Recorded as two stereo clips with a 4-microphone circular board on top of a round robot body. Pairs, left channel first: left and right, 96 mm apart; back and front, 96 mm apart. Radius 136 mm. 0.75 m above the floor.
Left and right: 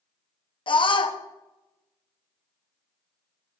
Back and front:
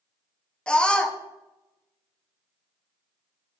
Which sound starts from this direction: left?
A scream, at 0.7 s.